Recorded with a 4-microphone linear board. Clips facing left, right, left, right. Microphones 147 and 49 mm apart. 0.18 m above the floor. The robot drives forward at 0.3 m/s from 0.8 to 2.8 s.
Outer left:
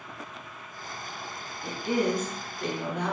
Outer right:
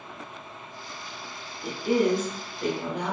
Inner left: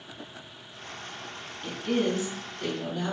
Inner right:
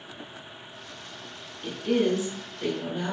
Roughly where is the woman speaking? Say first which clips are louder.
Outer right 4 dB, inner right 3 dB; centre.